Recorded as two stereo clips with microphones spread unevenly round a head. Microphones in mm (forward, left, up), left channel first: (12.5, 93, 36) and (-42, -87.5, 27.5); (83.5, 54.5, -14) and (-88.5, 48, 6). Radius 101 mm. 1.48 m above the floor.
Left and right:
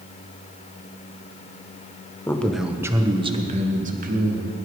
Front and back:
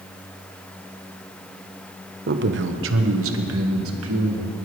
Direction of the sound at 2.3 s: 150° left.